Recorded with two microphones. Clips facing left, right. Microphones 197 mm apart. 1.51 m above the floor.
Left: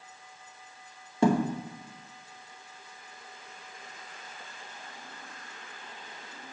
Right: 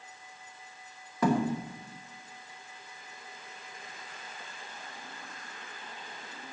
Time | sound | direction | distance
1.2 | a thud | 30° left (ahead or behind) | 0.8 m